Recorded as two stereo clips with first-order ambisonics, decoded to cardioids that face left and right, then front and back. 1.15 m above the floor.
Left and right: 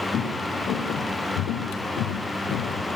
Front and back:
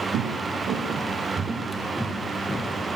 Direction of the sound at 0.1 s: 145° left.